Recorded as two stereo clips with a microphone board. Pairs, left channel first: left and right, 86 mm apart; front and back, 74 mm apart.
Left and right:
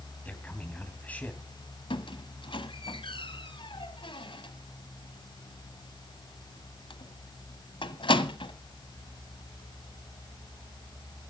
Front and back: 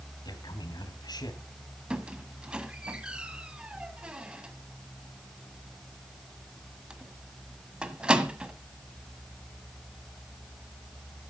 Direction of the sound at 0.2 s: 15° left.